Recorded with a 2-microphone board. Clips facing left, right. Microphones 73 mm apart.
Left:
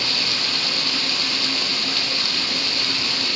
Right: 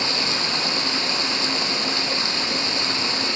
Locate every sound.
0.0 s running water: 25° right (ahead or behind), 0.8 m